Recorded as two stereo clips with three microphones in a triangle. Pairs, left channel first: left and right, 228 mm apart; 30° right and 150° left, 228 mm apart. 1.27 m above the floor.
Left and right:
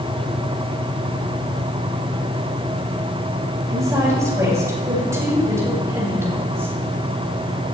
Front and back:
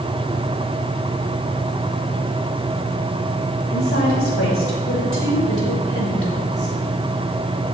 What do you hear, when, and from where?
3.7 s a woman speaking: 15° right, 7 m; by 6.8 s 10° right, 5 m